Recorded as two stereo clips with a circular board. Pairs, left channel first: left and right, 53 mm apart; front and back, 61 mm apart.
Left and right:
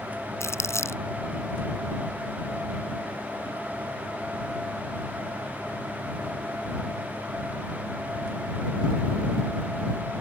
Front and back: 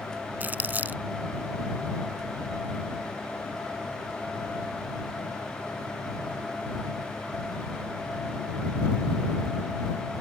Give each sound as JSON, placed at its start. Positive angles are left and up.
{"t": 0.4, "sound": "crumpling", "azimuth_deg": 120}